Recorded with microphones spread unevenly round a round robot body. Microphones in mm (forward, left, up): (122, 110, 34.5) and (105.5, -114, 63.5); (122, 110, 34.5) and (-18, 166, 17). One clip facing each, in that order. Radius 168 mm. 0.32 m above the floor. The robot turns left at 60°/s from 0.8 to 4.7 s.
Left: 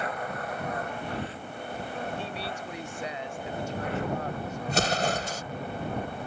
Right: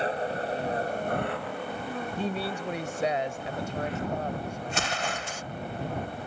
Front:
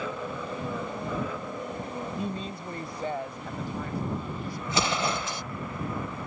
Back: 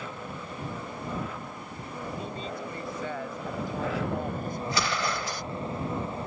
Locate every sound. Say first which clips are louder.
0.0 s an engine running: right 4 dB, front 5 dB; 35° right; by 6.3 s 95° left
2.2 s a woman speaking: right 5 dB, front 2 dB; 40° right; by 4.6 s 175° left
4.7 s an explosion: left 9 dB, front 4 dB; 50° left